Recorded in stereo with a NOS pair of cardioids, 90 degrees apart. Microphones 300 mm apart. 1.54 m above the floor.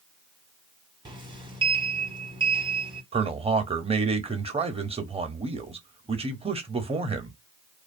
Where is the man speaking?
20° right, 0.7 m.